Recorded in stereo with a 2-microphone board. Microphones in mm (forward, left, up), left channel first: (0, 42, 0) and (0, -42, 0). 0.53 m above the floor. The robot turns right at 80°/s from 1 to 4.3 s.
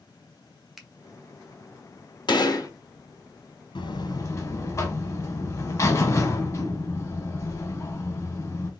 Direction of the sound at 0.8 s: 5° right (ahead or behind).